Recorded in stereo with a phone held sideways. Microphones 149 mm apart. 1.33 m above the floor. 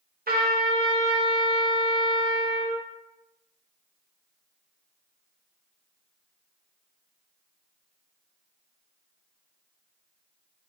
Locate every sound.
0.3 s a trumpet: 80° right, 0.6 m